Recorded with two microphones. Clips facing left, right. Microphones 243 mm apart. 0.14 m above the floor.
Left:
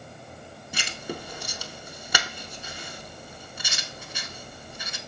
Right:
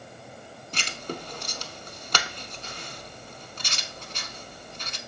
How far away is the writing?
About 0.5 m.